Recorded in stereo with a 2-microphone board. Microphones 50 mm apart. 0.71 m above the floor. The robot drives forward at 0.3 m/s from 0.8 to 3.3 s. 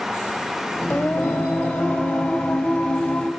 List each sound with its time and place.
0.9 s singing: 45° left (ahead or behind), 1.5 m; by 3.3 s 30° left (ahead or behind), 2 m